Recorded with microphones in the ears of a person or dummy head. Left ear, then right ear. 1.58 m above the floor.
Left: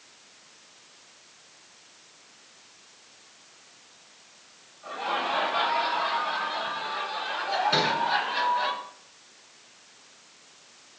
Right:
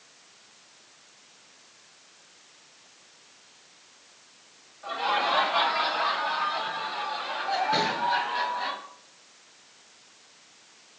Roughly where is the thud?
Left.